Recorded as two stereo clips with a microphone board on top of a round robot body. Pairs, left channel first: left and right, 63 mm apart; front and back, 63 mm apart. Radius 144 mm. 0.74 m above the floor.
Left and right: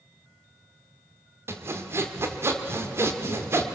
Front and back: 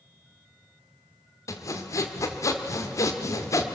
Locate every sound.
1.5 s sawing: 40° right, 1.6 m